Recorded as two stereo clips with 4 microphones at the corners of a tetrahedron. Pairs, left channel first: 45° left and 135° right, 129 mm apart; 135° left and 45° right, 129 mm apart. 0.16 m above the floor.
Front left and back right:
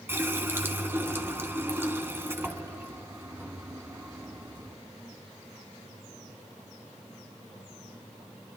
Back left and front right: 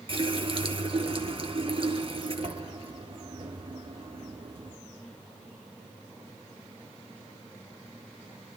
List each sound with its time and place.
0.1 s a running tap: 70° right, 1.3 m